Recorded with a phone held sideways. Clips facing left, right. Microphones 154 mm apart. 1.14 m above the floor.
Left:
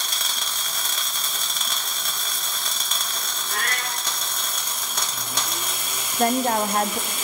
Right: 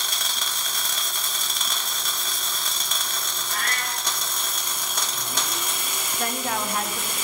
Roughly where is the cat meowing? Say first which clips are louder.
Left 1 dB; left.